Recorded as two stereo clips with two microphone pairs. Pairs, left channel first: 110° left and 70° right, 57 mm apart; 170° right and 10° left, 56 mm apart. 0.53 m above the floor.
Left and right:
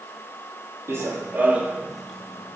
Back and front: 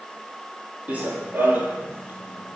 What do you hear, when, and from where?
0.9 s running footsteps: 45° right, 0.8 m; by 2.6 s 60° left, 0.7 m